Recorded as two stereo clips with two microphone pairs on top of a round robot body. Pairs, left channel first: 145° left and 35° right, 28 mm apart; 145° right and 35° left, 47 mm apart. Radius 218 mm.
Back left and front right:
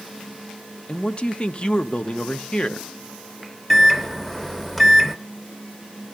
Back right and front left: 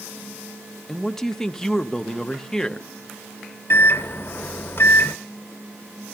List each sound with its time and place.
0.9 s a man speaking: 135° left, 1.1 m
3.7 s a microwave: 120° right, 1.1 m